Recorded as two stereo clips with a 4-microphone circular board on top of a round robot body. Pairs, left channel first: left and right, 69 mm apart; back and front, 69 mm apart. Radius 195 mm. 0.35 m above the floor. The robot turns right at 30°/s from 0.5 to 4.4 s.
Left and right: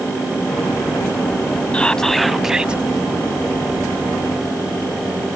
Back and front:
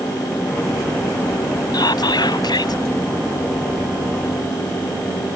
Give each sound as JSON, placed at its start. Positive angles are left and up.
{"t": 1.7, "sound": "whispering", "azimuth_deg": 165}